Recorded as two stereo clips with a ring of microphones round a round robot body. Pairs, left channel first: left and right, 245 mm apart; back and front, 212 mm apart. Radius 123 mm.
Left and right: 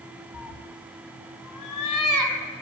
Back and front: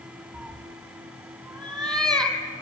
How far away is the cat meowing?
About 2 m.